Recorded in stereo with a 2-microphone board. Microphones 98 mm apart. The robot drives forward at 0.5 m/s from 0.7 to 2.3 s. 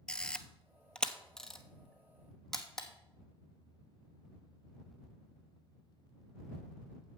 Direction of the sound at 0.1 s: 10° left (ahead or behind).